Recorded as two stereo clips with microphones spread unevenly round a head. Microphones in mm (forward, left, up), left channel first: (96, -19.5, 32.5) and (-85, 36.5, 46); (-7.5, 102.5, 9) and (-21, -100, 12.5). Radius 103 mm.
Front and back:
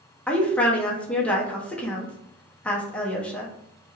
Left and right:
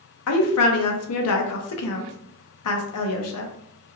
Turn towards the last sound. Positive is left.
turn(degrees=65)